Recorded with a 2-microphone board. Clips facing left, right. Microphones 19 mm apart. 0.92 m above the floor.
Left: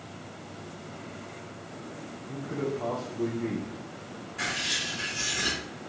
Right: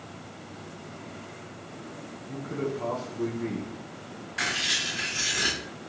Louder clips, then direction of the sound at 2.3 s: Even; 10° right (ahead or behind).